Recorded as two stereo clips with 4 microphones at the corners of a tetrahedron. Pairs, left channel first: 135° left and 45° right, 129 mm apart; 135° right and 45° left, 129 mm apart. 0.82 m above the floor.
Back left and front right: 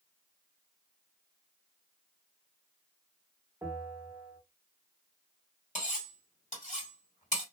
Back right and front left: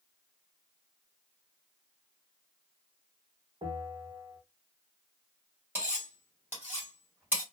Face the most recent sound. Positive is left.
turn(degrees=120)